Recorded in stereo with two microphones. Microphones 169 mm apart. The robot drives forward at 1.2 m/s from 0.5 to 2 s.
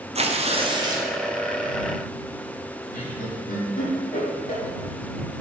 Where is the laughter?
60° left (ahead or behind), 3.5 m.